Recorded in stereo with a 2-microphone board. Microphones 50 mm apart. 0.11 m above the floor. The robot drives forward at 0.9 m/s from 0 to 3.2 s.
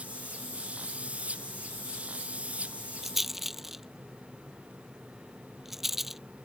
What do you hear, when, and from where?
3.0 s a rattle: 5° right (ahead or behind)